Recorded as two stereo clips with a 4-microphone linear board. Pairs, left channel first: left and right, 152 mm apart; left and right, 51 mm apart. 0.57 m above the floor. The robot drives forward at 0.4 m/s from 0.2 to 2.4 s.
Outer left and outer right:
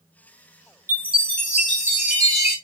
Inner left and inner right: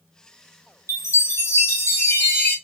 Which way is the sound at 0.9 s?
70° left (ahead or behind).